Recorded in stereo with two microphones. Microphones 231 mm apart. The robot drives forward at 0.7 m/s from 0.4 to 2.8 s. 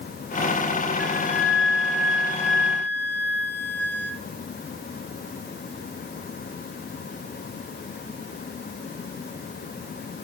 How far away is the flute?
About 2.5 m.